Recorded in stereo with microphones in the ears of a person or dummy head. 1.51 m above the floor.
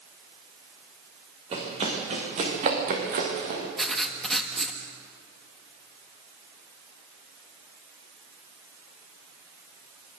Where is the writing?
Centre (ahead or behind), 1.9 m.